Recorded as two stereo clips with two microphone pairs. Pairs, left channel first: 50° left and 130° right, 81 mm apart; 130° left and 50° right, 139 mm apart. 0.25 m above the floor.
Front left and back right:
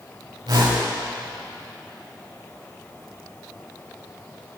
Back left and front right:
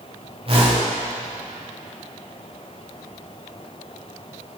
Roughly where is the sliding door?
No sliding door in this recording.